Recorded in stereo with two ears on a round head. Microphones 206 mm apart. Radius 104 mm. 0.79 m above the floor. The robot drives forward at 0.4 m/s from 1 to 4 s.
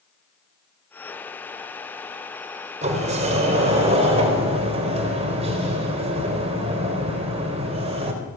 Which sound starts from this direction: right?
A sliding door, at 2.8 s.